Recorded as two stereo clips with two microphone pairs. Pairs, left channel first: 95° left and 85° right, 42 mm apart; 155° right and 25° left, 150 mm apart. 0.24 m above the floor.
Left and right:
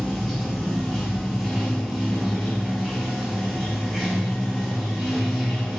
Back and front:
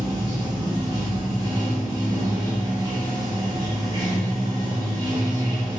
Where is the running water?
5° left, 0.8 m.